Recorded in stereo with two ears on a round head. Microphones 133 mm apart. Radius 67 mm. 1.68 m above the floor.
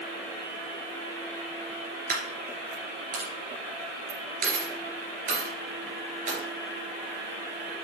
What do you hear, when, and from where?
2.1 s a dropped coin: 60° right (ahead or behind), 3.5 m